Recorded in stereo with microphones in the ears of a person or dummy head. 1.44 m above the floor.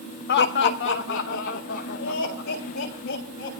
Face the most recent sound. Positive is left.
turn(degrees=75)  # may be behind; listen again after turning